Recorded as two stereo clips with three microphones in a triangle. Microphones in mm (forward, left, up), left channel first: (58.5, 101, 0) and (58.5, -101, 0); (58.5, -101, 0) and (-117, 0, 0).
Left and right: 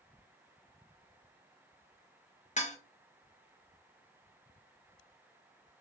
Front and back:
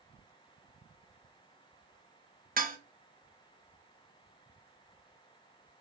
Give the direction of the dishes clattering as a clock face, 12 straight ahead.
8 o'clock.